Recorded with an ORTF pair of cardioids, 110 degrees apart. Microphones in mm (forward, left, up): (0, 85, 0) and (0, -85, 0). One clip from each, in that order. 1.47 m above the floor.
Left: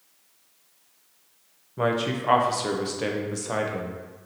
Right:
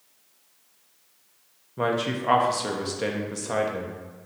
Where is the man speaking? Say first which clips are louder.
Left 1 dB; straight ahead, 0.5 m.